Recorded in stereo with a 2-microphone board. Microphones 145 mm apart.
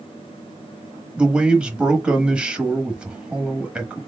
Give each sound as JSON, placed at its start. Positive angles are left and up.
{"t": 1.2, "sound": "a man speaking", "side_deg": -5, "distance_m": 0.9}